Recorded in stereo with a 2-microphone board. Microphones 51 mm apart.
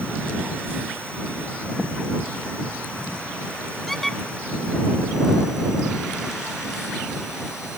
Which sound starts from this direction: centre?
A squeak, at 3.9 s.